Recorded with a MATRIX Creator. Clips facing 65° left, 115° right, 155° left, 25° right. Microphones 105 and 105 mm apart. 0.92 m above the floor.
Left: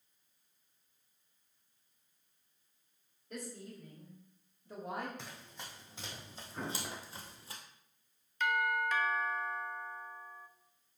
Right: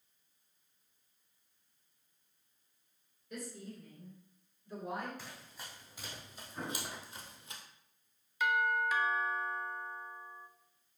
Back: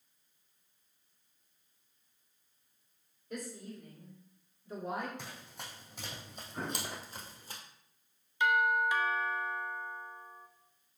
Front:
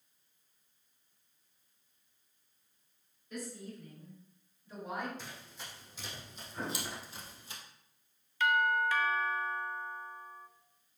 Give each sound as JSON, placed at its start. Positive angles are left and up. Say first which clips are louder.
{"t": 3.3, "sound": "a woman speaking", "louder": "even, even", "azimuth_deg": 115, "distance_m": 3.0}
{"t": 5.2, "sound": "running footsteps", "louder": "left 1 dB, back 1 dB", "azimuth_deg": 130, "distance_m": 2.5}
{"t": 6.5, "sound": "an explosion", "louder": "left 1 dB, even", "azimuth_deg": 115, "distance_m": 3.5}
{"t": 8.4, "sound": "a doorbell", "louder": "right 1 dB, back 1 dB", "azimuth_deg": 180, "distance_m": 0.7}